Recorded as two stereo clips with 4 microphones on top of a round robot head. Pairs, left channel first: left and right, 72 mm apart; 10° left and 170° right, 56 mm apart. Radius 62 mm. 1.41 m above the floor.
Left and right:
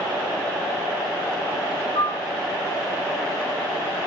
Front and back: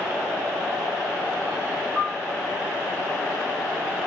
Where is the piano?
105° left, 3.5 m.